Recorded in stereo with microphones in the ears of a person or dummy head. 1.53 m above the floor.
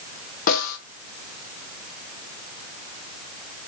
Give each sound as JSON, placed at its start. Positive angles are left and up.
{"t": 0.5, "sound": "a snare drum", "side_deg": 50, "distance_m": 1.2}